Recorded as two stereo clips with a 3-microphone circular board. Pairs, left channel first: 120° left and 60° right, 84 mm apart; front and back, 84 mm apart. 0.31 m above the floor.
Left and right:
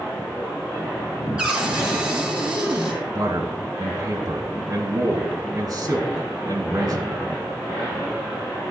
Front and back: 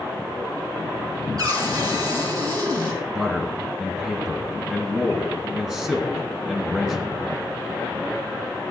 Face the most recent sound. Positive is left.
turn(degrees=-100)